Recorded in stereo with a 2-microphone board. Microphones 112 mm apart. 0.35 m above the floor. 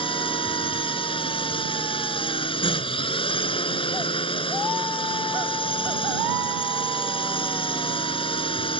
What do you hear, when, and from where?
0.0 s a drone: 55° left (ahead or behind)